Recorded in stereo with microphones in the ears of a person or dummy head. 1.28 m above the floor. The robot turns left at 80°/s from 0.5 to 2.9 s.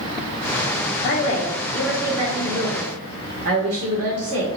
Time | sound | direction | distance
1.0 | a woman speaking | 60° left | 1.4 m